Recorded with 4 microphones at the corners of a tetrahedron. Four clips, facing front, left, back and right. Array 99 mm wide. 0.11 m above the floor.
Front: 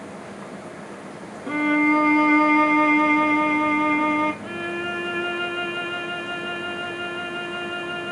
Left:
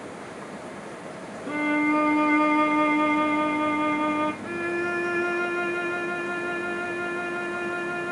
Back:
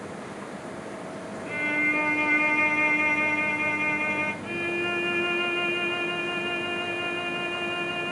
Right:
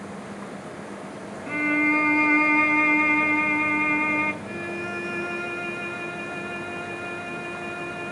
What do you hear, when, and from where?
1.5 s a violin: 30° left, 0.9 m
4.4 s a violin: 75° left, 0.7 m